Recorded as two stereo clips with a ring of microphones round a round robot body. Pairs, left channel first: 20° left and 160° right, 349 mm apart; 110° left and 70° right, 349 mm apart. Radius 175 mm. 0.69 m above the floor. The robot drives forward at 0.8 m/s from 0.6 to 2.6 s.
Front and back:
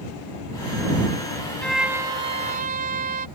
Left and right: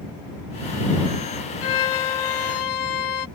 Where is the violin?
110° left; by 3.3 s 135° left.